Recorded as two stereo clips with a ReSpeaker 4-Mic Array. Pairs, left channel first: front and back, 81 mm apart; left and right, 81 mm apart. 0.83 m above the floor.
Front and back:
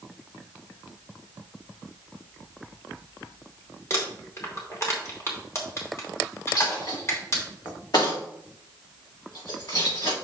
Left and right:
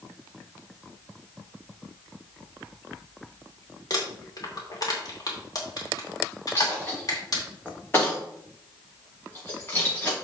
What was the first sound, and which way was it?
Crumpling, 55° left.